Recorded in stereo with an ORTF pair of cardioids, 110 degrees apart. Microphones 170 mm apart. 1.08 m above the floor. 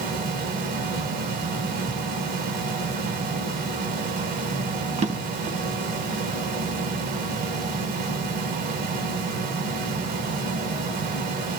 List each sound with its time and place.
0.0 s a fan: 65° right, 5 m
5.0 s a drawer: 45° right, 3 m